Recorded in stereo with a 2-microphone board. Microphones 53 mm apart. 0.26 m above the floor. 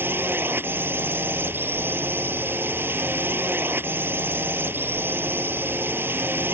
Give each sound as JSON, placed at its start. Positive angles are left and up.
{"t": 0.0, "sound": "a drone", "side_deg": -45}